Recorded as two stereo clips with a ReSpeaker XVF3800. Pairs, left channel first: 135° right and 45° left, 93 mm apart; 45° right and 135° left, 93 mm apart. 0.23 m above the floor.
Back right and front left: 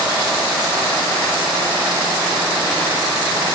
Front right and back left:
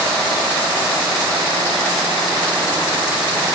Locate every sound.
Only background noise.